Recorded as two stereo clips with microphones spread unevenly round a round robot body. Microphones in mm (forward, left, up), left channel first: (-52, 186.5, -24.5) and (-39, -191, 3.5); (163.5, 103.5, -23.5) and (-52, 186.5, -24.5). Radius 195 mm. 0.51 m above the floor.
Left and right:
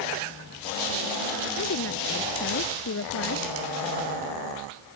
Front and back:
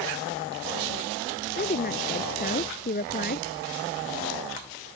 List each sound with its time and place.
1.6 s a woman speaking: 30° left